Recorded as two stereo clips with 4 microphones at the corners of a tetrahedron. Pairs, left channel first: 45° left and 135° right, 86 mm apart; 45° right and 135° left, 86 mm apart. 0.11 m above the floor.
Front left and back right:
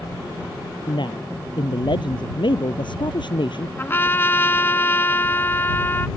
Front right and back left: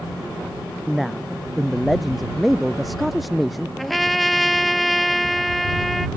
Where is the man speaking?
45° left.